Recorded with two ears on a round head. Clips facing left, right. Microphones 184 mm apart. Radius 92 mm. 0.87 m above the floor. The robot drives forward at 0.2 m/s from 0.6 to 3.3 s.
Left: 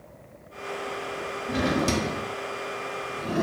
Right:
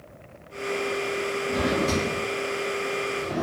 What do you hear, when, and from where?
1.5 s a drawer: 35° left (ahead or behind), 0.7 m